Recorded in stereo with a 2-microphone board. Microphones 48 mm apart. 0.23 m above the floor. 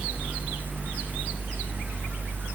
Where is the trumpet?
No trumpet in this recording.